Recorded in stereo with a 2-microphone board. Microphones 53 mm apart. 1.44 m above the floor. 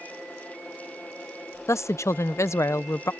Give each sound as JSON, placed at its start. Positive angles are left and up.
{"t": 1.7, "sound": "a woman speaking", "side_deg": 65}